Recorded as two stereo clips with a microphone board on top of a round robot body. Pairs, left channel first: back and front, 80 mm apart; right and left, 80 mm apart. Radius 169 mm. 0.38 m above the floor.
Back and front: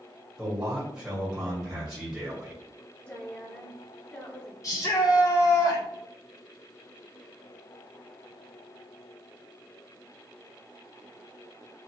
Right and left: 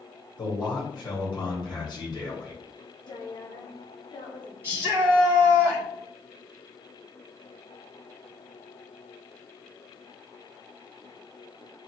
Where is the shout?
145° left, 2 m.